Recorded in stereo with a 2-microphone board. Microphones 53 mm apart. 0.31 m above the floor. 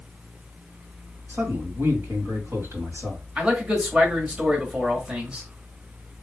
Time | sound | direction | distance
1.3 | a man speaking | 55° right (ahead or behind) | 2 m
3.4 | a man speaking | 20° right (ahead or behind) | 1.5 m